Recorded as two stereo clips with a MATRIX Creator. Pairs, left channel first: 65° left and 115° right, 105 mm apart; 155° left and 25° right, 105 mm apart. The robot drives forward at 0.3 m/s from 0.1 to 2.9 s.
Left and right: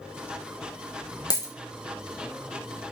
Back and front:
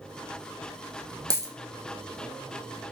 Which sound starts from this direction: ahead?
A dropped coin, at 1.3 s.